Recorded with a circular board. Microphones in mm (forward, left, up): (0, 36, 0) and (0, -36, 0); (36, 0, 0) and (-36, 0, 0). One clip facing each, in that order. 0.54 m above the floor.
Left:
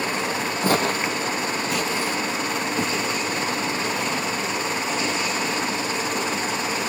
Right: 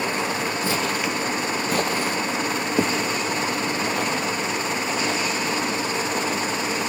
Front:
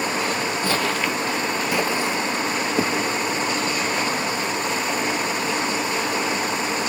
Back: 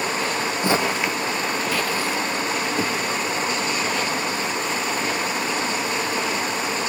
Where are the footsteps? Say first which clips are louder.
Left 6 dB, back 3 dB; 115° left, 1.1 m; by 6.5 s 65° right, 7.5 m.